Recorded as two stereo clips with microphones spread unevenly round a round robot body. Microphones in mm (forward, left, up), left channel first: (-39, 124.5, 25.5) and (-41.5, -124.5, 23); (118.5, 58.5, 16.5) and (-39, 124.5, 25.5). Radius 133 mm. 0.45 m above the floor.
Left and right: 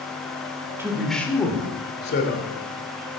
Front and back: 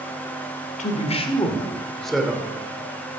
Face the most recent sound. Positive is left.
turn(degrees=80)